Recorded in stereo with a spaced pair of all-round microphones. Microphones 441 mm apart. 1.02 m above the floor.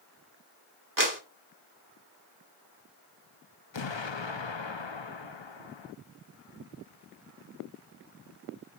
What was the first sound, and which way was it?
A clap, 45° right (ahead or behind).